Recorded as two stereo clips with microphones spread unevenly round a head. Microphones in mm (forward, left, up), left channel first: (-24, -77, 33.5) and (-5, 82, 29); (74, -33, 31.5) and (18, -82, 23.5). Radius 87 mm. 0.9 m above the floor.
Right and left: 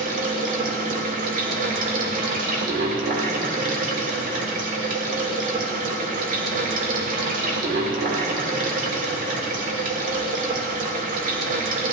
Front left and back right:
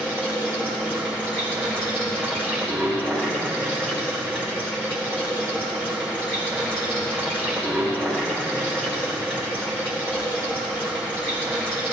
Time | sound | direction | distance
0.0 | running water | 125° left | 1.6 m